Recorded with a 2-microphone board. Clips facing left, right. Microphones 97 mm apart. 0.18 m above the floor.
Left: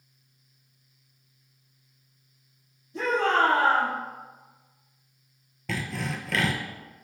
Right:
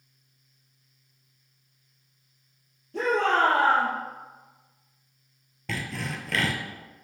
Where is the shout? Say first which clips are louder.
Even; 65° right (ahead or behind), 3.5 m.